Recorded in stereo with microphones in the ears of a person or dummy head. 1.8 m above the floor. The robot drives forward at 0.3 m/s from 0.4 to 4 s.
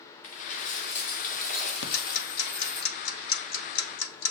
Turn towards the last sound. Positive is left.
turn(degrees=85)